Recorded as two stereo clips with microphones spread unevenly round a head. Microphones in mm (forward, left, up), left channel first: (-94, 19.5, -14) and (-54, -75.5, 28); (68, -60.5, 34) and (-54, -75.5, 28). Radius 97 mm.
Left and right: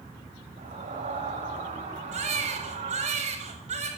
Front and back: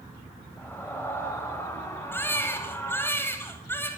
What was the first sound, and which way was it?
A scream, 65° right.